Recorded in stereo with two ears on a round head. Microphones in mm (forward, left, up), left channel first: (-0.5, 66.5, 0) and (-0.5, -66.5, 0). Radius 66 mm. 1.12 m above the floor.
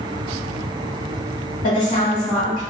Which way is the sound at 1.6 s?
45° left (ahead or behind).